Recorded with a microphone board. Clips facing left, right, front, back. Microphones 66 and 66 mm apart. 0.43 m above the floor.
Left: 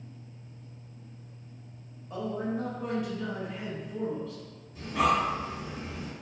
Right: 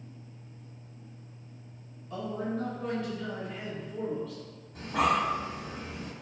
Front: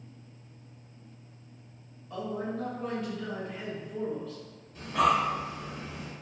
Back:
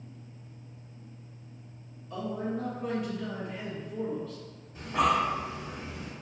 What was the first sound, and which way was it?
A man speaking, 65° left.